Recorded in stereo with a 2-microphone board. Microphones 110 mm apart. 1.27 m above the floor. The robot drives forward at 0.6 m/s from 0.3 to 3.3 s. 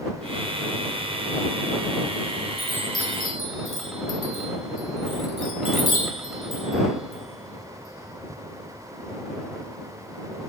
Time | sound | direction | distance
2.6 | a chime | centre (ahead or behind) | 2.5 m